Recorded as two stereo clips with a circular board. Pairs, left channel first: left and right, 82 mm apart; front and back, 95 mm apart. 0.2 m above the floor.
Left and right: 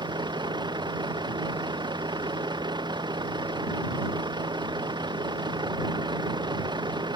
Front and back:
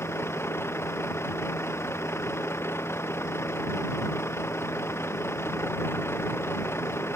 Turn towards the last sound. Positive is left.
turn(degrees=-65)